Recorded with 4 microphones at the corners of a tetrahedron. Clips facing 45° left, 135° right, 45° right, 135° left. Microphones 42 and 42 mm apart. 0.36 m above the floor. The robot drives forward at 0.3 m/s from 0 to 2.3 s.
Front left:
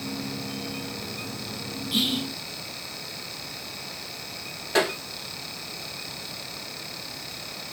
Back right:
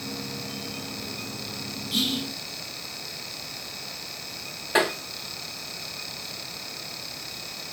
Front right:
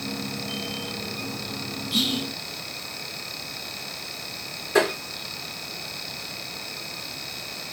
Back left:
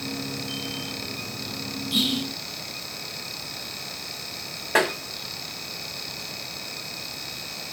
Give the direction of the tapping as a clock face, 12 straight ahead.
7 o'clock.